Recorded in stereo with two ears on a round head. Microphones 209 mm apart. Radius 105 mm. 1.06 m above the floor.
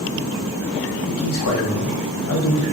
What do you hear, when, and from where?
1.1 s a man speaking: 65° left (ahead or behind), 0.8 m